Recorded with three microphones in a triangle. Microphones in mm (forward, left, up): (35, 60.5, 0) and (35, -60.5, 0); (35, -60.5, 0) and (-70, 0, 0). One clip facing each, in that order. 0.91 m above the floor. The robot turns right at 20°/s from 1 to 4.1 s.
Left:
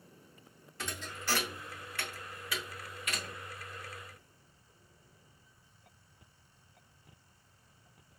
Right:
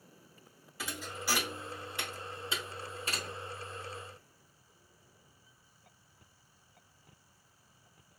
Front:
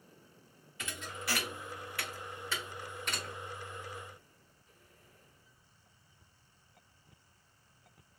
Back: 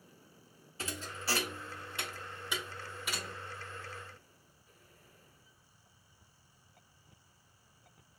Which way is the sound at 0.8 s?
170° right.